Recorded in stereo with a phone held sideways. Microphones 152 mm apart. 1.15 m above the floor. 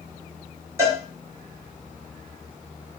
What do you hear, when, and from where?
0.8 s a cowbell: 20° right (ahead or behind), 1.2 m